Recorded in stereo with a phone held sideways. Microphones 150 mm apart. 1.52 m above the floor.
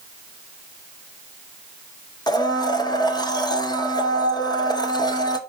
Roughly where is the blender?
Left.